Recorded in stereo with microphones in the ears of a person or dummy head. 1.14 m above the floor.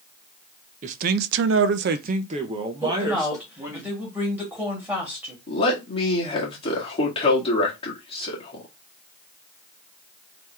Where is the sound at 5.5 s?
30° left (ahead or behind), 1.7 m.